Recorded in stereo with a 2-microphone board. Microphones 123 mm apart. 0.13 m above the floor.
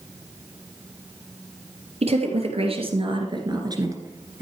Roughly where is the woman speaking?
Right.